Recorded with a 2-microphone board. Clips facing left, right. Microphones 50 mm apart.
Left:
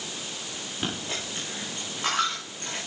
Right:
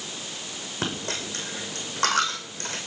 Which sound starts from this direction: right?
A dropped coin, at 0.8 s.